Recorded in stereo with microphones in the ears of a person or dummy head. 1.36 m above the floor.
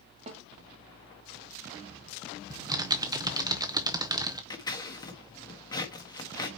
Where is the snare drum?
40° right (ahead or behind), 1.4 m.